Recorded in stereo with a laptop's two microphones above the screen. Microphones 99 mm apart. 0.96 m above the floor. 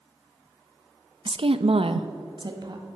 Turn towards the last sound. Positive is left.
turn(degrees=-40)  # may be behind; listen again after turning